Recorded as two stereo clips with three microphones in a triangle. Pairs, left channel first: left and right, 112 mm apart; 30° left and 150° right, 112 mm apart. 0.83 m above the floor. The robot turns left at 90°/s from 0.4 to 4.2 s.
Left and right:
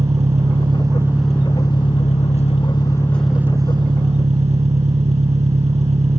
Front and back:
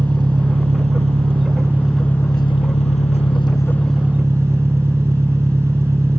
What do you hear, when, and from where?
0.0 s an engine running: 105° right; by 6.2 s 85° right